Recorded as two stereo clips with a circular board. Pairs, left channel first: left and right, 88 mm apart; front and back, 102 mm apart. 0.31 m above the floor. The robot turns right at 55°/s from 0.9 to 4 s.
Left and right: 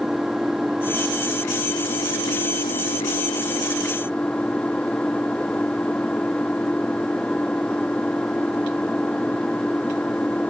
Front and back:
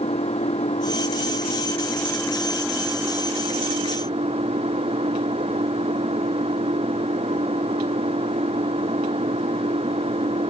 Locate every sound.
0.0 s an engine running: 5° right; by 10.5 s 165° left